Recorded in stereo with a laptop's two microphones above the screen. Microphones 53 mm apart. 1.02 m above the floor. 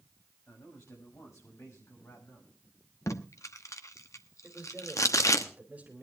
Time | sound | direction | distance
0.5 | a man speaking | 65° left (ahead or behind) | 6 m
3.1 | tape being pulled | 75° left (ahead or behind) | 1.0 m
4.4 | a man speaking | 30° right (ahead or behind) | 3 m